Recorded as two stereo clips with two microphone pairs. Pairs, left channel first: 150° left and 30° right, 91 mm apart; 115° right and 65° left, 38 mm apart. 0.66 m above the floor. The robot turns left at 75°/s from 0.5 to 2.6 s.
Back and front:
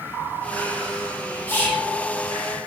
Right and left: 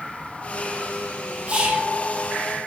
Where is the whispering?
95° left, 0.7 m; by 1.9 s 65° left, 0.7 m.